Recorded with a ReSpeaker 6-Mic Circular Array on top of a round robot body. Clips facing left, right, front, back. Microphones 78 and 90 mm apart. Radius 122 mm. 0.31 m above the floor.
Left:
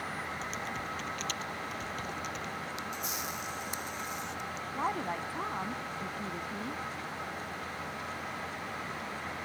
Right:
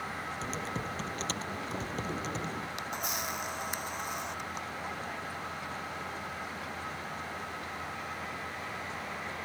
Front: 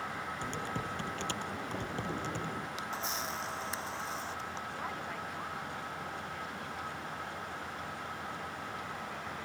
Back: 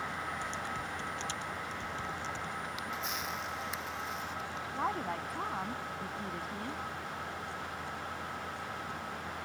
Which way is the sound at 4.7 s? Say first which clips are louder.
Left 5 dB, back 5 dB; 130° left.